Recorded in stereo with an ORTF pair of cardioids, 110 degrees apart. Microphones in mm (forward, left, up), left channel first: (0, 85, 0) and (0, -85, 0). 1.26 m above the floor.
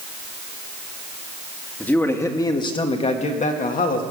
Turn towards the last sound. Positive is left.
turn(degrees=60)